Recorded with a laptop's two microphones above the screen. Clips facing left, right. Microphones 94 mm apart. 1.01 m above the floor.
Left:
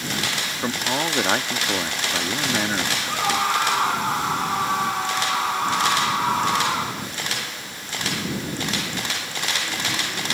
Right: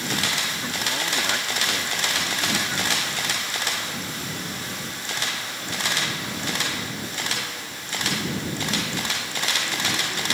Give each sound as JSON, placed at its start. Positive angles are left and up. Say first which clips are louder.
{"t": 0.6, "sound": "a man speaking", "louder": "left 5 dB", "side_deg": 40}
{"t": 3.1, "sound": "a scream", "louder": "left 9 dB", "side_deg": 70}